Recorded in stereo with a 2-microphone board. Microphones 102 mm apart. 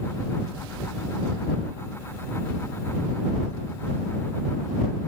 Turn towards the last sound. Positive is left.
No sound to turn to.